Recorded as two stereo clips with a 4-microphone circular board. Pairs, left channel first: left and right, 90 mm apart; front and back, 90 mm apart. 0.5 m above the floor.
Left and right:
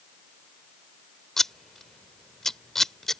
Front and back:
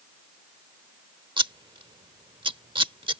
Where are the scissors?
175° left.